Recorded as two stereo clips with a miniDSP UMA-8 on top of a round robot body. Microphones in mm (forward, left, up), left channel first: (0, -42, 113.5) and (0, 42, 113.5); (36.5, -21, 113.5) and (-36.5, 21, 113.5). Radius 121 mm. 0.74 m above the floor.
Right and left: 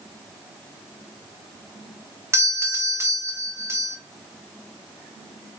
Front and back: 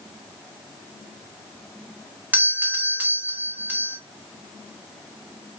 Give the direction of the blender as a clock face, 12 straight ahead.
I don't hear a blender.